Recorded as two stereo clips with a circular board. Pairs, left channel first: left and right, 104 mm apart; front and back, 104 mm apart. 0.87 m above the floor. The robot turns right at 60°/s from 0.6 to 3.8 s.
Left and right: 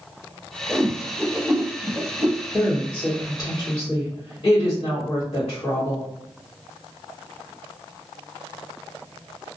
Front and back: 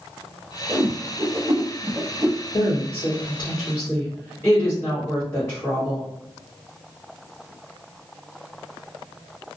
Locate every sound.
0.7 s a whoosh: 160° left, 0.8 m; by 2.4 s 100° right, 0.8 m
2.5 s a woman speaking: straight ahead, 1.6 m; by 6.1 s 75° left, 1.6 m